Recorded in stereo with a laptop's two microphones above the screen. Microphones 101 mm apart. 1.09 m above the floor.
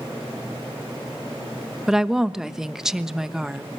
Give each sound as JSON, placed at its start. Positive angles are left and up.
{"t": 1.9, "sound": "a woman speaking", "side_deg": -5, "distance_m": 1.0}